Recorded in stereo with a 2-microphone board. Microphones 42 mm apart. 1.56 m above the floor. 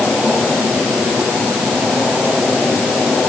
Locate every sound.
Only background noise.